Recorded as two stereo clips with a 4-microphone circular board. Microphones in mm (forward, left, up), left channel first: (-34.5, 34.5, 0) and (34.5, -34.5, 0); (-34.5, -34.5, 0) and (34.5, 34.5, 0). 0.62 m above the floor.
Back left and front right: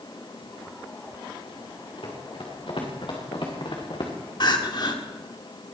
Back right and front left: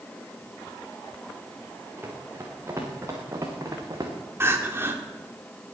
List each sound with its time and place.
2.0 s running footsteps: 110° left, 5 m; by 4.1 s 95° left, 3.5 m
4.4 s crying: 105° left, 1.7 m